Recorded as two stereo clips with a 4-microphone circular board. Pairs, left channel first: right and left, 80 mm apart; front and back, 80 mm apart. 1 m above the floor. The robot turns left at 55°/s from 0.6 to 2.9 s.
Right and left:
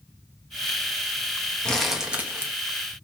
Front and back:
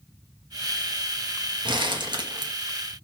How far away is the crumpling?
About 0.7 m.